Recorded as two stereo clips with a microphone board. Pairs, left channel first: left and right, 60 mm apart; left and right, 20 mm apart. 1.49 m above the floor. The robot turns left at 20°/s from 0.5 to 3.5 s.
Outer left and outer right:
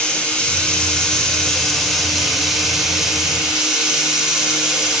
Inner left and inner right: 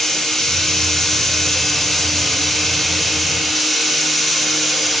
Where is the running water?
35° left, 1.0 m; by 5.0 s 25° right, 1.0 m.